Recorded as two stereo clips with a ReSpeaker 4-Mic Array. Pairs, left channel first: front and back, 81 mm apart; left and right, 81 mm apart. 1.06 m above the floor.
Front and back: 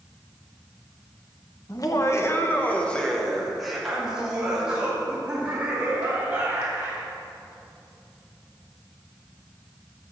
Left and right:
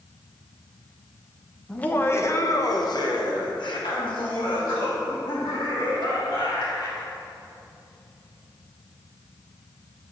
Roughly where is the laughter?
Ahead.